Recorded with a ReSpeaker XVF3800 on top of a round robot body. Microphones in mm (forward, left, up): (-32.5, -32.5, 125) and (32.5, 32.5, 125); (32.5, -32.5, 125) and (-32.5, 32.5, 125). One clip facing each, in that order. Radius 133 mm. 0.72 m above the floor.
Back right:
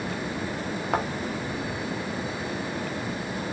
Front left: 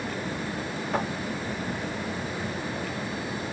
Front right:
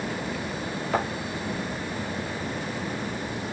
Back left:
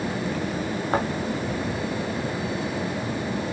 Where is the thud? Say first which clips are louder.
Back right 2 dB, back left 2 dB; 170° right, 1.7 m.